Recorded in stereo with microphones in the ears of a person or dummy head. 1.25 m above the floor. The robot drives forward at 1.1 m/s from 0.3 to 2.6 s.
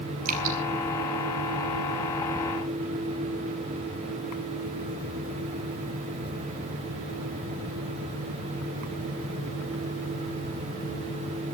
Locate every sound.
0.2 s dripping: 45° right (ahead or behind), 4.5 m; by 0.6 s 50° right (ahead or behind), 4.5 m